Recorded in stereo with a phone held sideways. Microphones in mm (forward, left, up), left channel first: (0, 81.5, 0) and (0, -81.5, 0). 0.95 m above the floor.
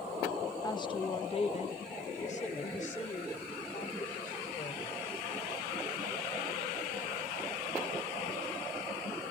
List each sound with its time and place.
0.6 s a woman speaking: 20° left (ahead or behind), 0.8 m; by 5.1 s 50° left (ahead or behind), 3.5 m